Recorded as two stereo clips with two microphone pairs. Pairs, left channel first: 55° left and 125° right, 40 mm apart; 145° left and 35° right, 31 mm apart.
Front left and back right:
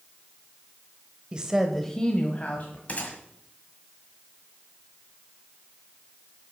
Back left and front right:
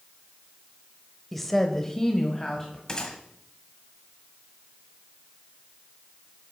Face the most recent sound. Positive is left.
turn(degrees=90)